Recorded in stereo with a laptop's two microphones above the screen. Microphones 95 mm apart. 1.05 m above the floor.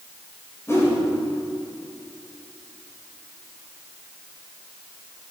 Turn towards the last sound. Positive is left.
turn(degrees=25)  # may be behind; listen again after turning